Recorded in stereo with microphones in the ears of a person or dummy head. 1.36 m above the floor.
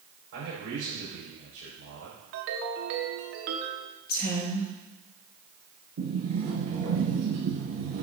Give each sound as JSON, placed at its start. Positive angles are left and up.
{"t": 0.3, "sound": "a man speaking", "side_deg": -65, "distance_m": 4.5}
{"t": 2.3, "sound": "a ringtone", "side_deg": -65, "distance_m": 1.3}
{"t": 4.1, "sound": "a woman speaking", "side_deg": 60, "distance_m": 1.7}
{"t": 6.0, "sound": "a sliding door", "side_deg": -45, "distance_m": 4.0}